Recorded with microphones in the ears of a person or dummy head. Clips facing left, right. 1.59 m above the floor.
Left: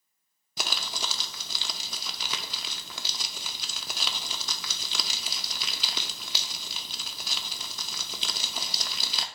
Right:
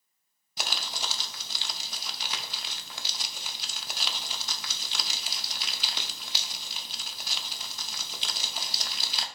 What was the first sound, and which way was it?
Crumpling, 70° left (ahead or behind).